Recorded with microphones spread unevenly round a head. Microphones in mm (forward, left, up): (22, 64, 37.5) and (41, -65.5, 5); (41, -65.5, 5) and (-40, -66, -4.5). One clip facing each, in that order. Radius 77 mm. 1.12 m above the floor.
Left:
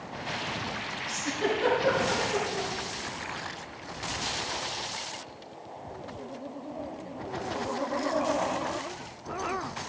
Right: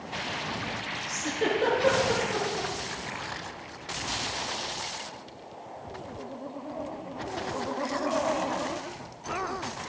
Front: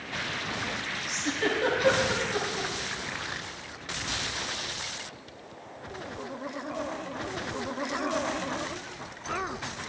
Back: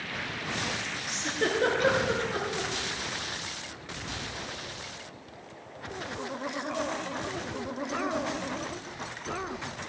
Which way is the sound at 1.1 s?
140° right.